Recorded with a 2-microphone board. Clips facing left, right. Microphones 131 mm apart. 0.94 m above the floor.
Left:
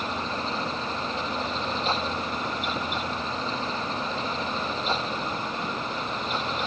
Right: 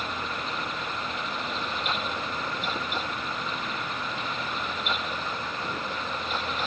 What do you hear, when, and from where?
Only background noise.